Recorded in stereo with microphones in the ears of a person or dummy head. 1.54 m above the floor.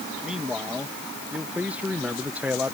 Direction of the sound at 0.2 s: Centre (ahead or behind).